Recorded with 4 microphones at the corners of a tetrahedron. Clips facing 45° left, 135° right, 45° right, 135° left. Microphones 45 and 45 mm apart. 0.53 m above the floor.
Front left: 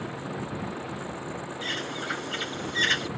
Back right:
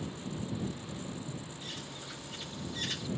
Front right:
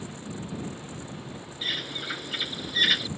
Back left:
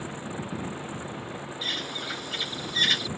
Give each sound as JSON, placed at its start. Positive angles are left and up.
{"t": 0.0, "sound": "a vehicle", "azimuth_deg": 70}
{"t": 1.6, "sound": "a bird", "azimuth_deg": 35}